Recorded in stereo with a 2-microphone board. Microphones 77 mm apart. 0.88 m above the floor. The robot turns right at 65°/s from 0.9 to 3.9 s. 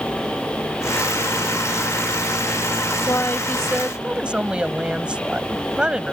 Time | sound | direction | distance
3.1 | a woman speaking | 140° left | ?